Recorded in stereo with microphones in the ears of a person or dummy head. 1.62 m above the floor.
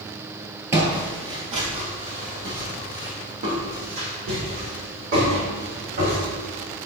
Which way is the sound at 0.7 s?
20° right (ahead or behind).